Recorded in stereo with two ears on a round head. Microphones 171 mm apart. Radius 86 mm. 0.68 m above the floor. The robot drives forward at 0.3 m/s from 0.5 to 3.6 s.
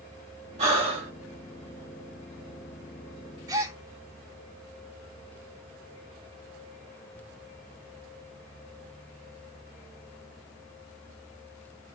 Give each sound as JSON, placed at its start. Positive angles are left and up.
{"t": 0.6, "sound": "breathing", "side_deg": -35, "distance_m": 1.4}
{"t": 3.5, "sound": "a gasp", "side_deg": -20, "distance_m": 0.9}